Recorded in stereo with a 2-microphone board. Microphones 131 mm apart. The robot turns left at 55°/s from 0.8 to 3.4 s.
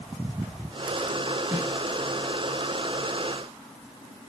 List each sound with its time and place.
1.5 s a snare drum: 20° right (ahead or behind), 1.3 m; by 1.7 s 15° right (ahead or behind), 1.3 m